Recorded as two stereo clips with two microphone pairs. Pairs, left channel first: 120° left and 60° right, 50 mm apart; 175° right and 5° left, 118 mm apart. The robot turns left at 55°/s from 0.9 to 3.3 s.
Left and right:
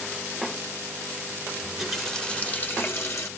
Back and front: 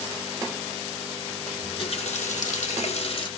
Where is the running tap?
130° right, 1.5 m; by 3.3 s 140° left, 1.5 m.